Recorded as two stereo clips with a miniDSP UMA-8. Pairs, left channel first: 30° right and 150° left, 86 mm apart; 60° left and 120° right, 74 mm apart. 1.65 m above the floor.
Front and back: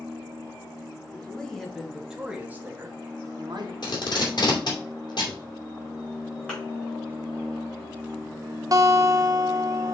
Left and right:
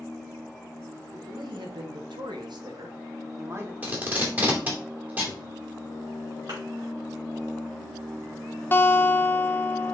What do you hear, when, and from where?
1.1 s a man speaking: 110° right, 2 m; by 3.7 s straight behind, 1.5 m
3.8 s tape being pulled: 55° right, 2.5 m
6.5 s a thud: 110° right, 5 m
8.7 s a guitar: 120° left, 0.7 m